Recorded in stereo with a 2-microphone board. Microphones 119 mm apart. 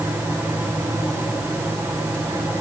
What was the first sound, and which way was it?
Only background noise.